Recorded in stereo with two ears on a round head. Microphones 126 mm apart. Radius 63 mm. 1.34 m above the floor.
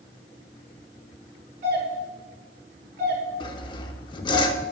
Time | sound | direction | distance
1.6 | a doorbell | 80° right | 4.5 m
3.4 | sawing | 35° left (ahead or behind) | 1.1 m